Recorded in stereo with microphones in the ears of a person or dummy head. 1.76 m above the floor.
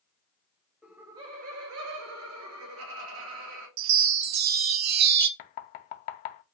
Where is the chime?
65° right (ahead or behind), 0.5 m.